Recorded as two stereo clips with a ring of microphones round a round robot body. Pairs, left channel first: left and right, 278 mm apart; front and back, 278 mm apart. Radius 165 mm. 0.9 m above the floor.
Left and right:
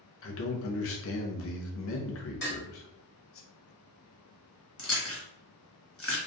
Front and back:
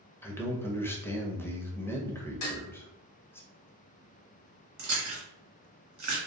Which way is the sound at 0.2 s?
80° left.